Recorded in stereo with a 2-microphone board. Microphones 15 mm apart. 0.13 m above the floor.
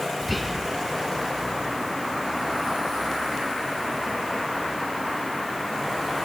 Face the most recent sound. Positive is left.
turn(degrees=0)  # may be behind; listen again after turning